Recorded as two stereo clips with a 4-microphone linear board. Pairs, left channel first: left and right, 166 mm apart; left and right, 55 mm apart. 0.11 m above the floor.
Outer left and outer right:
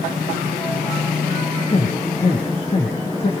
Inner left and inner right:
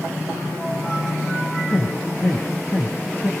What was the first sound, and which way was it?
A man speaking, 40° left (ahead or behind).